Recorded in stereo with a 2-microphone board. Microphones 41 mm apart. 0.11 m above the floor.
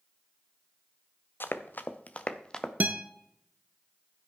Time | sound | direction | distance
1.4 | running footsteps | 60° left (ahead or behind) | 1.1 m
2.8 | a guitar | 45° right (ahead or behind) | 0.8 m